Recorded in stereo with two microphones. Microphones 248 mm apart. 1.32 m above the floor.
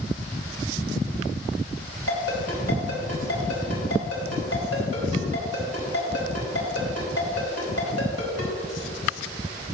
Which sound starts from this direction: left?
A ringtone, at 2.1 s.